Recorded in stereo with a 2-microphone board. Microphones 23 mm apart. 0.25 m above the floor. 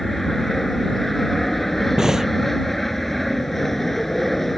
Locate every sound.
0.0 s an aircraft: 10° left (ahead or behind)
2.0 s breathing: 20° right (ahead or behind)